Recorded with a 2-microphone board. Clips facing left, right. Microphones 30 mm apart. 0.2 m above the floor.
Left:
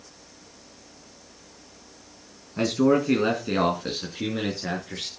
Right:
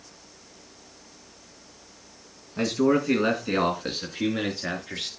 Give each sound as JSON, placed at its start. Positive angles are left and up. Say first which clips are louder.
{"t": 2.6, "sound": "a man speaking", "louder": "left 1 dB", "side_deg": 5, "distance_m": 2.0}